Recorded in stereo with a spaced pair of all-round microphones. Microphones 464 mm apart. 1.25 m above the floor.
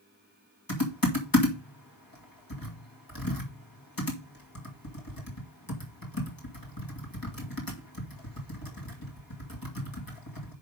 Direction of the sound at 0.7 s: 45° left (ahead or behind).